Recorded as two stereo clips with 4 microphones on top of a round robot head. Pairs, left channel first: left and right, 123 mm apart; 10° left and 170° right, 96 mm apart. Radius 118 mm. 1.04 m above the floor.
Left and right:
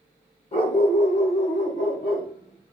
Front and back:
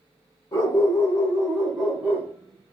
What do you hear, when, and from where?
0.5 s a dog barking: 60° left, 1.2 m; by 2.7 s 140° left, 1.1 m